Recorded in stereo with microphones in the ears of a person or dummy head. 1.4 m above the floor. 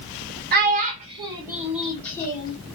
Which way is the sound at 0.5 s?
50° right (ahead or behind).